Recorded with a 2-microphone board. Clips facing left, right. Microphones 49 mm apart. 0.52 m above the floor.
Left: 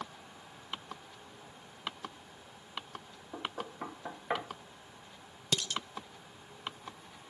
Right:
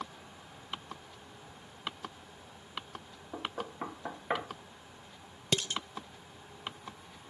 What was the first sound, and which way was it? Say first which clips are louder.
Knocking: right 1 dB; 15° right (ahead or behind).